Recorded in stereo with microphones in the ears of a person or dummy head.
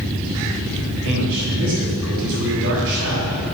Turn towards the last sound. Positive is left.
turn(degrees=-70)  # may be behind; listen again after turning